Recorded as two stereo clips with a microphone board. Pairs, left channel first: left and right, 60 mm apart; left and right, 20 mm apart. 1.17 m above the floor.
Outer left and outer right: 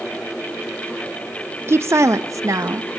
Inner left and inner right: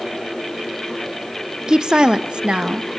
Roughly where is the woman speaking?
Right.